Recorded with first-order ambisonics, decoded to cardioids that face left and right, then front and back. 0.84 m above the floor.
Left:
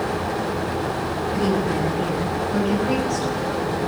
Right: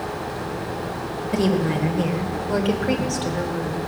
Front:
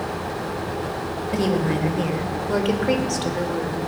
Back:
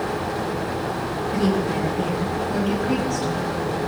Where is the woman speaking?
45° right, 3.5 m; by 3.8 s 10° right, 2.5 m.